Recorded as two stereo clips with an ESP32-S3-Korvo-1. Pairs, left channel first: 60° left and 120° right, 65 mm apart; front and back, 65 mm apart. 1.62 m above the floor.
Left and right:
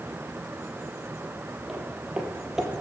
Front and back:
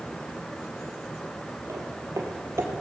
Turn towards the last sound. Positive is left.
turn(degrees=155)